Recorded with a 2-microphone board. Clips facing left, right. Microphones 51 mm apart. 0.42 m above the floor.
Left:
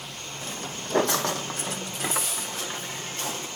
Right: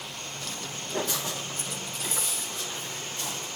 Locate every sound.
0.4 s footsteps: 25° left (ahead or behind), 0.9 m; by 3.5 s 65° left (ahead or behind), 3.5 m